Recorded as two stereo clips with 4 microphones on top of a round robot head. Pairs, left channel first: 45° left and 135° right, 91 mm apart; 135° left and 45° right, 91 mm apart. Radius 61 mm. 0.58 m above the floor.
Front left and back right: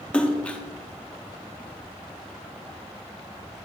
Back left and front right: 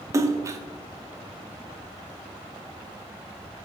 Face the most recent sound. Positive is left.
turn(degrees=-25)